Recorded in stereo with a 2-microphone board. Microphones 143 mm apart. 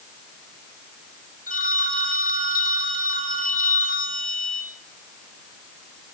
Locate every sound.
1.5 s a phone ringing: 70° left (ahead or behind), 4 m